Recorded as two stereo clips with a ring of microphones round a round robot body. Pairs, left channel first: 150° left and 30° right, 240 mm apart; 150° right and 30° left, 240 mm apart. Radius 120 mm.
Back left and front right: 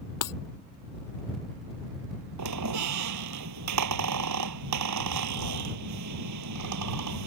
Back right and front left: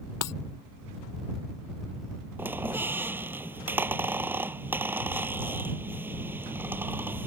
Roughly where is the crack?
I don't hear a crack.